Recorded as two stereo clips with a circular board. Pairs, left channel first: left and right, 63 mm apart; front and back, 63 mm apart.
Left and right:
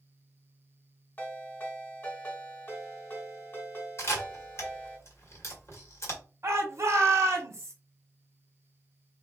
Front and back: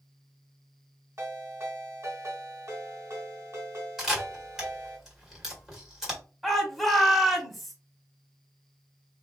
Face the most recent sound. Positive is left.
turn(degrees=-90)